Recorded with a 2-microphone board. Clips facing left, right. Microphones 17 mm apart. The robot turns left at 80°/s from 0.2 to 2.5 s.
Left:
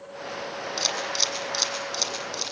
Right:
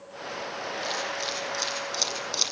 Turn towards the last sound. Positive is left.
turn(degrees=-35)  # may be behind; listen again after turning